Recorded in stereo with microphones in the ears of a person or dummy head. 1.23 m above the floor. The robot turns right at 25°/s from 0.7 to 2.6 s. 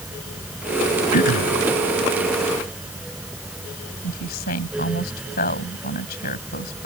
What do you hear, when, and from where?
1.1 s throat clearing: 45° left (ahead or behind); by 1.6 s 55° left (ahead or behind)
4.0 s a woman speaking: 50° left (ahead or behind)